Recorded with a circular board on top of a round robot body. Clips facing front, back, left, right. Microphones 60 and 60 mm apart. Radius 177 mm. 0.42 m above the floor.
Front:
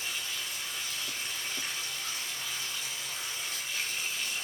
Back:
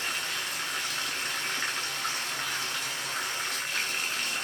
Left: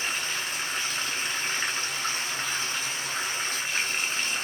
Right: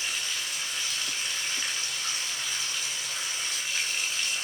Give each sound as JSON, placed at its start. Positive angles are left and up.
{"t": 0.0, "sound": "running water", "azimuth_deg": 145, "distance_m": 1.5}